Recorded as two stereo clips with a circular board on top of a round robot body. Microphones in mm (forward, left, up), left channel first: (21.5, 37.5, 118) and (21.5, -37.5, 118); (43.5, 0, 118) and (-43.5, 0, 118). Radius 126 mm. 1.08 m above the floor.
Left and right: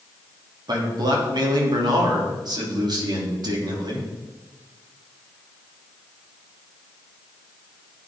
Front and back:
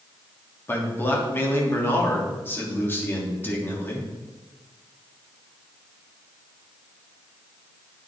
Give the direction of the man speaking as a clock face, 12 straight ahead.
2 o'clock.